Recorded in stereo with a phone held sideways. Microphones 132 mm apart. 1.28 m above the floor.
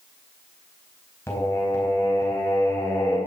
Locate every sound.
1.3 s singing: 20° left (ahead or behind), 4.5 m